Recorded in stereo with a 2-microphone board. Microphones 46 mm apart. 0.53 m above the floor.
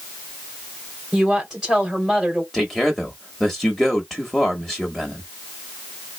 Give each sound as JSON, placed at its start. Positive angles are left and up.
{"t": 1.1, "sound": "a woman speaking", "side_deg": -10, "distance_m": 2.5}
{"t": 2.5, "sound": "a man speaking", "side_deg": 0, "distance_m": 0.9}